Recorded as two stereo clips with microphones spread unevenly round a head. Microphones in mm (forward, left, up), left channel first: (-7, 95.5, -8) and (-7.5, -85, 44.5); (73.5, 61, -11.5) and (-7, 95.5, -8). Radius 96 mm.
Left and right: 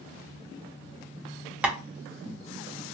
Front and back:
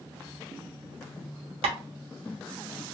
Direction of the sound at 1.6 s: 170° right.